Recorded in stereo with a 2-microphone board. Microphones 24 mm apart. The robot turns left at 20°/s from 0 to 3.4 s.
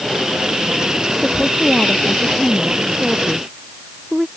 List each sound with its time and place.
1.2 s a woman speaking: 30° left; by 4.3 s 15° right